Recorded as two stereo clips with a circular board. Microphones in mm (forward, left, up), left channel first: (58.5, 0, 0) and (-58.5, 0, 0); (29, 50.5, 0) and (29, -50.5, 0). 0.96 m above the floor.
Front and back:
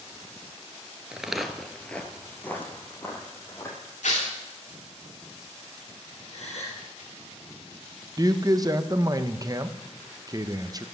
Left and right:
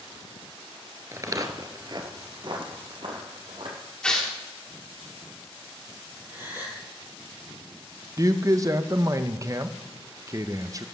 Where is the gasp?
25° right, 4.5 m.